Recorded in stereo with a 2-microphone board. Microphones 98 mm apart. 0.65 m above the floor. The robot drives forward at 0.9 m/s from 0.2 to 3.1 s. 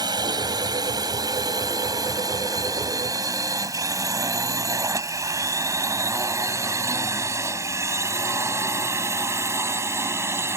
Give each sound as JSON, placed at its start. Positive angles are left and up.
{"t": 0.0, "sound": "a drone", "side_deg": -45}